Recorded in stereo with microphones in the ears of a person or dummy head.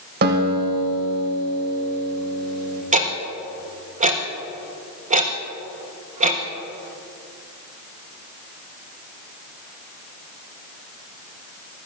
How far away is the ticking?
About 1.0 m.